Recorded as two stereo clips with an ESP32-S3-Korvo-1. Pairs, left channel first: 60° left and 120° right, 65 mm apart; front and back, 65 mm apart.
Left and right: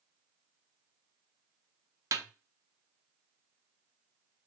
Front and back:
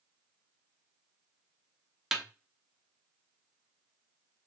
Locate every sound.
2.1 s a snare drum: 95° right, 0.7 m